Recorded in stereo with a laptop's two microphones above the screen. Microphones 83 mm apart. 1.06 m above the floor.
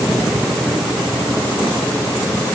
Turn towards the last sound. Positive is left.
No sound to turn to.